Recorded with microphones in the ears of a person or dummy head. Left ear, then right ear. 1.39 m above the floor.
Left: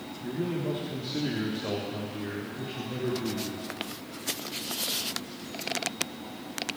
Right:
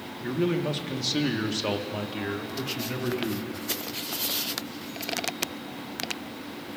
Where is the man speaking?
55° right (ahead or behind), 1.2 m; by 3.6 s 60° right (ahead or behind), 2 m.